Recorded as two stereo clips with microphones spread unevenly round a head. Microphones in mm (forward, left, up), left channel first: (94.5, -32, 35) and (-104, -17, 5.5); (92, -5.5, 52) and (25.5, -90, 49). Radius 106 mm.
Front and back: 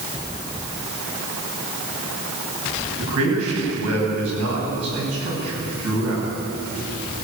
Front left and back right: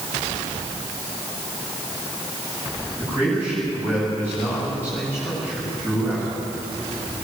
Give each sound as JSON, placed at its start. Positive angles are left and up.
{"t": 3.0, "sound": "a man speaking", "azimuth_deg": 150, "distance_m": 9.5}